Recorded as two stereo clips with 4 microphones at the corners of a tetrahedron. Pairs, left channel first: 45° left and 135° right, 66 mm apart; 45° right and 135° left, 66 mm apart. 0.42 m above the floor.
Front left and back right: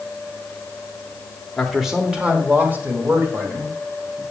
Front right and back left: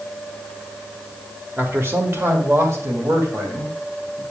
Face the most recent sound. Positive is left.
turn(degrees=180)